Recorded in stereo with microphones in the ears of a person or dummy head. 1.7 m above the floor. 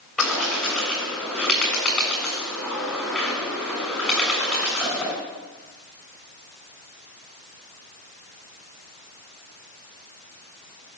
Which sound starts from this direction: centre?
A bird, at 0.2 s.